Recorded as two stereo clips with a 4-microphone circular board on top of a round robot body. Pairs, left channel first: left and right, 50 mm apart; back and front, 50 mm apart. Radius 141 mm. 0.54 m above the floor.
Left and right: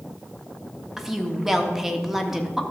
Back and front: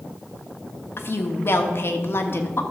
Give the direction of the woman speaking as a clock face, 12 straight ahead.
6 o'clock.